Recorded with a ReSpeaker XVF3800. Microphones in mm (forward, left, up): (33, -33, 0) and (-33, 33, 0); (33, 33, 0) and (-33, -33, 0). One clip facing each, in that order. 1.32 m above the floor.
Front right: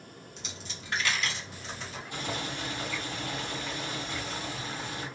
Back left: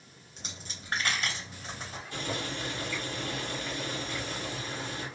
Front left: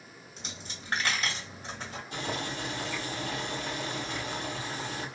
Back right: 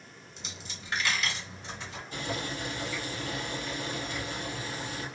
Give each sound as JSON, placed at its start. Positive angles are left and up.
{"t": 0.4, "sound": "a dropped coin", "azimuth_deg": 90, "distance_m": 1.4}
{"t": 2.1, "sound": "boiling", "azimuth_deg": 25, "distance_m": 1.7}